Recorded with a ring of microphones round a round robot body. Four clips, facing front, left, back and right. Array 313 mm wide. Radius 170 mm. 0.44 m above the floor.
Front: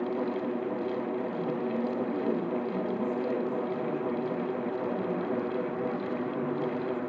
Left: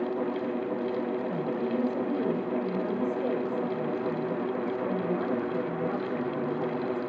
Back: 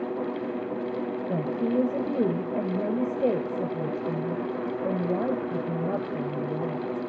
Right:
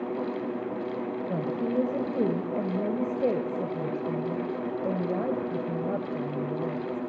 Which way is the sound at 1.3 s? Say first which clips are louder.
Right 1 dB, back 4 dB; 145° right.